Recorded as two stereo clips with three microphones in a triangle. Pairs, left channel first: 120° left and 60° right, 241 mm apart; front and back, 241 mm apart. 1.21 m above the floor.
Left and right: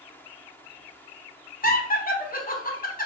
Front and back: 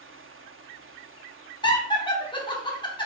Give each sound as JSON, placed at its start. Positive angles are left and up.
{"t": 1.6, "sound": "laughter", "azimuth_deg": 65, "distance_m": 0.7}